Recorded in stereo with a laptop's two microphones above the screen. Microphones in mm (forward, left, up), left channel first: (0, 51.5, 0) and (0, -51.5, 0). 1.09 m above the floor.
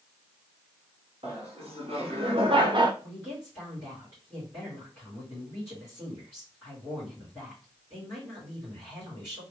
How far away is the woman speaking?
About 3 m.